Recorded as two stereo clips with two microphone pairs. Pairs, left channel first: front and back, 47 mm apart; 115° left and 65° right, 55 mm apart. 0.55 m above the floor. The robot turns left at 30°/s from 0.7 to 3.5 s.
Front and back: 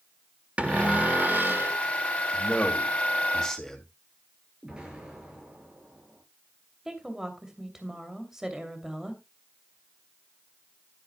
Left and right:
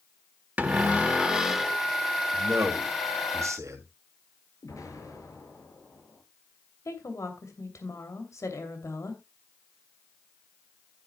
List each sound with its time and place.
0.6 s a cupboard door: 120° right, 1.4 m; by 1.8 s 155° right, 1.4 m
2.3 s a man speaking: 40° right, 2.5 m; by 3.9 s 75° right, 2.5 m
4.6 s an explosion: 110° left, 6 m
6.8 s a woman speaking: 105° left, 2.5 m